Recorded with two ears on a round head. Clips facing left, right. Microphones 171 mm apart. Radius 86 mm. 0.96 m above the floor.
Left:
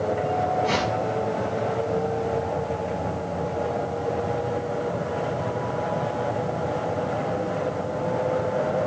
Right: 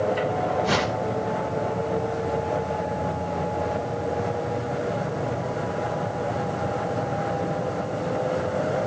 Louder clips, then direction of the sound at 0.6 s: Even; 10° right (ahead or behind).